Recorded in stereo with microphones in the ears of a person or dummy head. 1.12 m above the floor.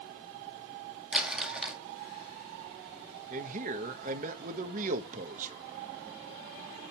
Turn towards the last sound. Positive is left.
turn(degrees=-45)  # may be behind; listen again after turning